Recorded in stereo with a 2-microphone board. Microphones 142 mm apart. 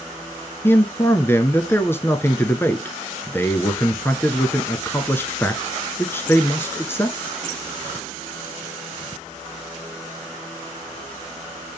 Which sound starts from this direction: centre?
A man speaking, at 0.6 s.